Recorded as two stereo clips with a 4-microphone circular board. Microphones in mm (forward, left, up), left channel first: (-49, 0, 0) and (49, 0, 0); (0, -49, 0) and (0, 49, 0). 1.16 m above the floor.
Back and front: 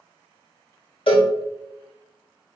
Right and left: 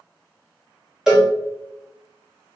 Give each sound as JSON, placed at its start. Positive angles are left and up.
{"t": 1.1, "sound": "a cowbell", "azimuth_deg": 170, "distance_m": 1.3}